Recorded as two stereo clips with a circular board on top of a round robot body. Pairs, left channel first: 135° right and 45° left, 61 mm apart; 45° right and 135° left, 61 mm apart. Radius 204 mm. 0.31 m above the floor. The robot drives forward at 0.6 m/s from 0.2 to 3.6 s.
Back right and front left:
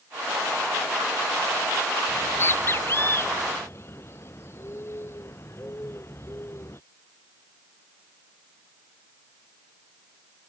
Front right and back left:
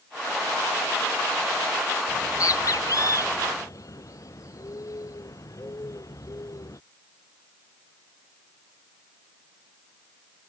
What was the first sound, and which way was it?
A bird, 80° right.